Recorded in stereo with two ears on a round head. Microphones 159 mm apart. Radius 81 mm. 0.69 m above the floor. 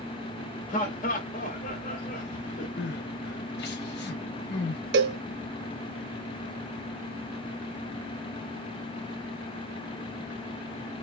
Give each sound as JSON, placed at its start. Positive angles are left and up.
{"t": 0.7, "sound": "laughter", "side_deg": 45, "distance_m": 0.7}
{"t": 2.8, "sound": "crying", "side_deg": 65, "distance_m": 0.8}
{"t": 4.9, "sound": "a cowbell", "side_deg": -65, "distance_m": 0.7}